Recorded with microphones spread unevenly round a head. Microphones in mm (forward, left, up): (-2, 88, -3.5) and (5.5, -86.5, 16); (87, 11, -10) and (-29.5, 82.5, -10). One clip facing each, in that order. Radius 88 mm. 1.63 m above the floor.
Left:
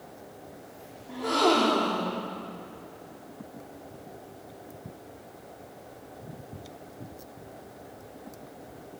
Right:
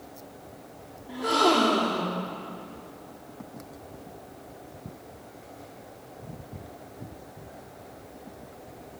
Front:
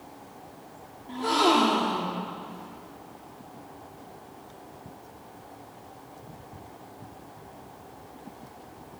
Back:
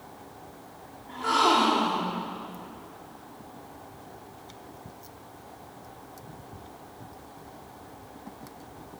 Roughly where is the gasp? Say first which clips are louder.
Right 1 dB, front 1 dB; ahead.